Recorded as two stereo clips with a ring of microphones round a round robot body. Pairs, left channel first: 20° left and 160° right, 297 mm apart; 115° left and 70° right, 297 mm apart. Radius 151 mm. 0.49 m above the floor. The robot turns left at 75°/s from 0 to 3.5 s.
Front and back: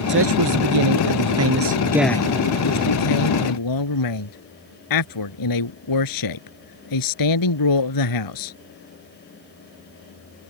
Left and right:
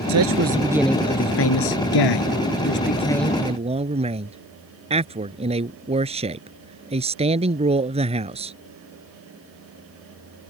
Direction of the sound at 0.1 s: 100° right.